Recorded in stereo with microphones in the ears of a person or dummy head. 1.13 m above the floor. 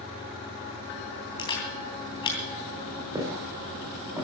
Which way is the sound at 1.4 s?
30° left (ahead or behind).